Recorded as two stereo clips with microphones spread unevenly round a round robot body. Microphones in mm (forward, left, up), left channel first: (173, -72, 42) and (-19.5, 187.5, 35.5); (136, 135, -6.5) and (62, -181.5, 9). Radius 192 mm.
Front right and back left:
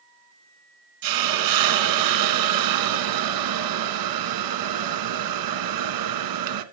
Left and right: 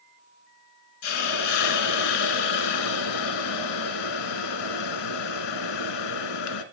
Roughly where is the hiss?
Left.